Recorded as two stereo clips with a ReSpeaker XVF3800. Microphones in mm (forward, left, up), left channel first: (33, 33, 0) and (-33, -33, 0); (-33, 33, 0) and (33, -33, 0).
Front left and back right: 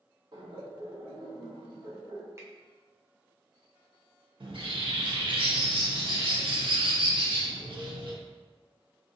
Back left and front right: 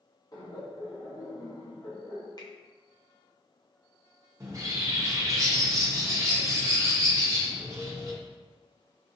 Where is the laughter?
175° right, 1.1 m.